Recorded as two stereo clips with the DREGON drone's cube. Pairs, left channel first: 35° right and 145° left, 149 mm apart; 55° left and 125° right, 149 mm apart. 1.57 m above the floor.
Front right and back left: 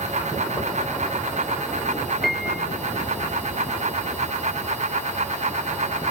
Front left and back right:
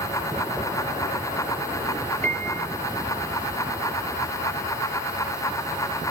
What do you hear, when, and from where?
2.2 s a piano: 125° right, 3 m